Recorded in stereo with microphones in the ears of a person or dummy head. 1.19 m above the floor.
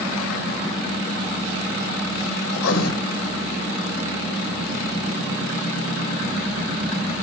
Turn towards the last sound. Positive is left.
turn(degrees=85)